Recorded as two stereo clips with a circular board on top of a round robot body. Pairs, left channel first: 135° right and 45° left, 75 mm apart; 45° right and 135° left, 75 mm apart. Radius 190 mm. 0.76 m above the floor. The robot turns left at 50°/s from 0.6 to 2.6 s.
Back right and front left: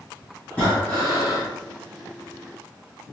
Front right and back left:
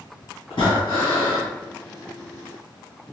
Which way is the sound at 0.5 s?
60° right.